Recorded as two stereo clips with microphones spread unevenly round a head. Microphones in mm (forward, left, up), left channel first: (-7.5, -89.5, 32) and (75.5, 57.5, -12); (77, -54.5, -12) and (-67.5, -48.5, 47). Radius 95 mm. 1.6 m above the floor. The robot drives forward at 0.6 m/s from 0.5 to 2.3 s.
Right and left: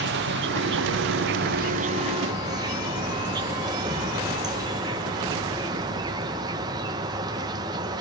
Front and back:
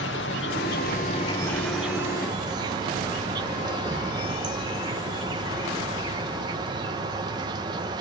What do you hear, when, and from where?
0.0 s an insect: 40° left, 0.9 m; by 8.0 s 140° left, 0.9 m